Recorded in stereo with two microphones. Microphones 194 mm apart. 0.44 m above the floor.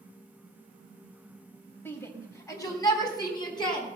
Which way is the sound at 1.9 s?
10° left (ahead or behind).